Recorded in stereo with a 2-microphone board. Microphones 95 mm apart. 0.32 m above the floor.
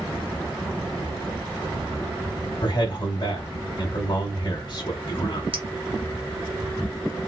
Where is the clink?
60° right (ahead or behind), 1.0 m.